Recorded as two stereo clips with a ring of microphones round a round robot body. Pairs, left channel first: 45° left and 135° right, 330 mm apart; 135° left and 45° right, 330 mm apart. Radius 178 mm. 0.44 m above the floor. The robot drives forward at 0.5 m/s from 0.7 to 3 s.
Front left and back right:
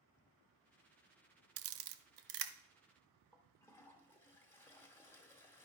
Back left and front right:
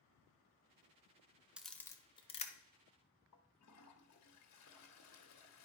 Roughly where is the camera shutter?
Behind right.